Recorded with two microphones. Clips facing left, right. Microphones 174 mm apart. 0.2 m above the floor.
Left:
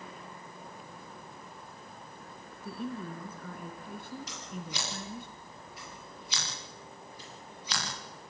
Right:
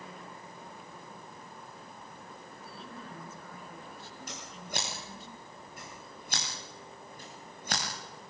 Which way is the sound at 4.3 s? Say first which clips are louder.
Left 1 dB; 50° right (ahead or behind).